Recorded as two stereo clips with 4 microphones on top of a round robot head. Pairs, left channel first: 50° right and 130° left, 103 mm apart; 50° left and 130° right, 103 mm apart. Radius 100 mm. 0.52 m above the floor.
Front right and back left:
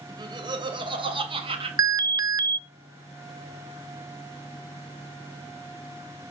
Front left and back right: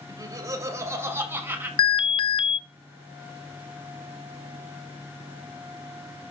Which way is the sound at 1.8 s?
80° left.